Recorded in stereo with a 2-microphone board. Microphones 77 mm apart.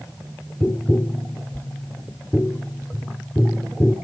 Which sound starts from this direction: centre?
Tapping, at 0.6 s.